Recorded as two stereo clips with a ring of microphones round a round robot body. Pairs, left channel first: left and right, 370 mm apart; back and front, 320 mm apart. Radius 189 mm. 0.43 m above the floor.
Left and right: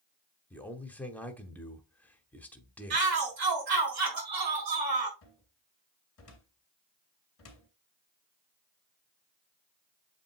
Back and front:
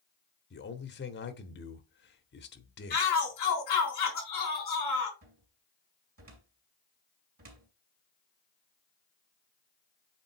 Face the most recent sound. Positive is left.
turn(degrees=40)